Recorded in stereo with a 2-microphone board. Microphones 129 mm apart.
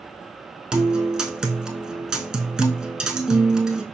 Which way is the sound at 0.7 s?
5° right (ahead or behind).